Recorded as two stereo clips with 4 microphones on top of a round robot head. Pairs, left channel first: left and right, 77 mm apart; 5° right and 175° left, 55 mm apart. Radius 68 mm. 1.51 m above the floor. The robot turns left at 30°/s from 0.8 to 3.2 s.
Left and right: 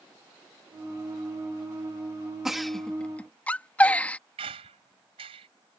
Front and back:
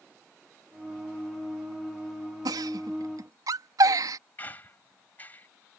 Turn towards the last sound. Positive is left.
turn(degrees=-75)